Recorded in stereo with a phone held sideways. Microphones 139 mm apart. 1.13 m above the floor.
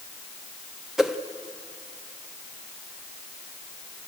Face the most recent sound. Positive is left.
turn(degrees=0)  # may be behind; listen again after turning